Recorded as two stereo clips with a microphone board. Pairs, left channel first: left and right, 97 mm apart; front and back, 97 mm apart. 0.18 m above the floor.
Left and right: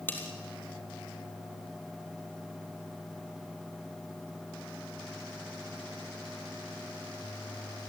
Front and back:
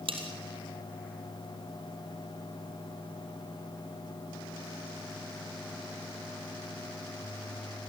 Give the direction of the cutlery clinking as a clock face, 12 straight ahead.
7 o'clock.